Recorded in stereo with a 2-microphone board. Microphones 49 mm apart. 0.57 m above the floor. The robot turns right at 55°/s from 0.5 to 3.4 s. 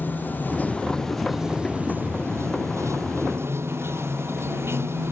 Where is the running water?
140° left; by 5.1 s 60° right.